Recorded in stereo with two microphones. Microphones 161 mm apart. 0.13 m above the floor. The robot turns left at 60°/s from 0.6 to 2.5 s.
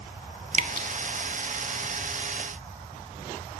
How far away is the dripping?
About 1.0 m.